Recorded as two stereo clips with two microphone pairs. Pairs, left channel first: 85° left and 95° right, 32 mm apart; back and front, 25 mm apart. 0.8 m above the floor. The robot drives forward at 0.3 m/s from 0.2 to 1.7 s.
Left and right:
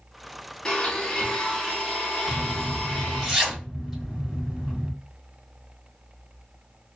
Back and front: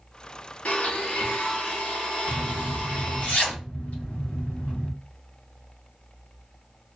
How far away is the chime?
No chime in this recording.